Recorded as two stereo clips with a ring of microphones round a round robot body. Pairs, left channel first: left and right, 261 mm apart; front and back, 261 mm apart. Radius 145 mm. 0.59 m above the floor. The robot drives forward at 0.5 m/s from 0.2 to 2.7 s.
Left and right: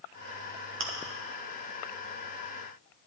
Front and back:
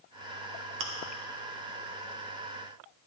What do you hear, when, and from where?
0.8 s chewing: 135° right, 0.9 m